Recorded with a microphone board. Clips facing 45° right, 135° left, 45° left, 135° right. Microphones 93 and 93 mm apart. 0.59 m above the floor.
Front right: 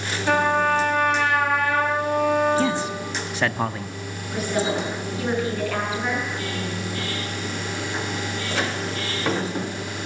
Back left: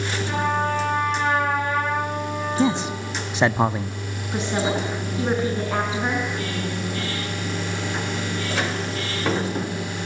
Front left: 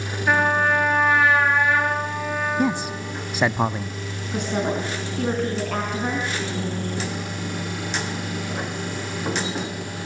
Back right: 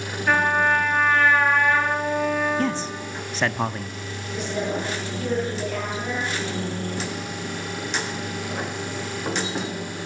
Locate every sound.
0.3 s a trumpet: 35° right, 6 m
2.6 s a man speaking: 100° left, 0.6 m
4.3 s a woman speaking: 70° left, 5.5 m